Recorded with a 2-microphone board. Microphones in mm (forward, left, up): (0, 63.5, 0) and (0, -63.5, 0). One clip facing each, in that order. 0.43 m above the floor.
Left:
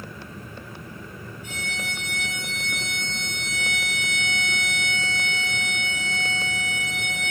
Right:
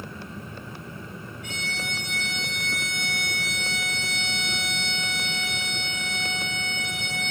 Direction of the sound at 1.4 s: 75° right (ahead or behind).